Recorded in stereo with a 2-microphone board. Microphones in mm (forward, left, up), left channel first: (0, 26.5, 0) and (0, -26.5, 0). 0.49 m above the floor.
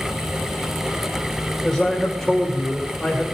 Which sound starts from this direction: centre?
A man speaking, at 1.6 s.